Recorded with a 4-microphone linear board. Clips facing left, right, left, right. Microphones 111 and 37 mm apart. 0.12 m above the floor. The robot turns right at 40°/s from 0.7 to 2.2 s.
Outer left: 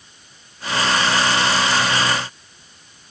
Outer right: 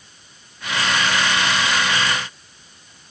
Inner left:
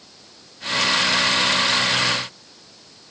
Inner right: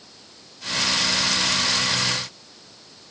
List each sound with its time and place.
Only background noise.